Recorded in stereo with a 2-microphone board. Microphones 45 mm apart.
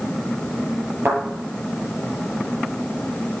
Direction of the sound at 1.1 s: 60° right (ahead or behind).